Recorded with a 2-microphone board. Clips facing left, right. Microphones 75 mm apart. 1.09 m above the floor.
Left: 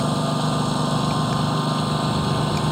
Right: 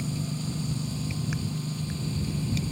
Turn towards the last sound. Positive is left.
turn(degrees=70)  # may be behind; listen again after turning